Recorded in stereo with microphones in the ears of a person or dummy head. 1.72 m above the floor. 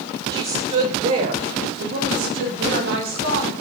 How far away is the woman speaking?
About 0.9 m.